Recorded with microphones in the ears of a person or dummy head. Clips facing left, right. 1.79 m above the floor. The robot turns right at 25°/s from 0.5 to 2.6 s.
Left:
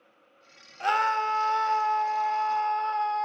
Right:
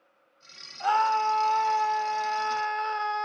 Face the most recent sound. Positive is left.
turn(degrees=-165)